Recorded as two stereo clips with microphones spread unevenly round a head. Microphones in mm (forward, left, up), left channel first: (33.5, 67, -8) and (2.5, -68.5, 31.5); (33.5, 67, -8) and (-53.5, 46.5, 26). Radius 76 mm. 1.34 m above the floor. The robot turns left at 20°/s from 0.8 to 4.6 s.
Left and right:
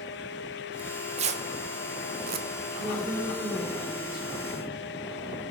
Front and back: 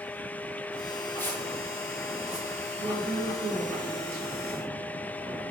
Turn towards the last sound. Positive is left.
turn(degrees=170)